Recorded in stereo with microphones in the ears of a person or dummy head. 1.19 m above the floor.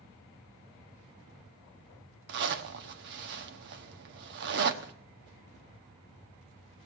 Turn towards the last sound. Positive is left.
turn(degrees=-60)  # may be behind; listen again after turning